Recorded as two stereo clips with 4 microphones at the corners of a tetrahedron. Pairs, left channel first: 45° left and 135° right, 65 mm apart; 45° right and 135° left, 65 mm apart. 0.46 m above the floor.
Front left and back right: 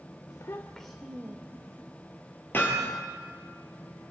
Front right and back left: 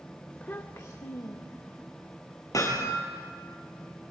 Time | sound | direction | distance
0.3 | a child speaking | 30° left | 0.9 m
2.5 | hammering | 10° right | 4 m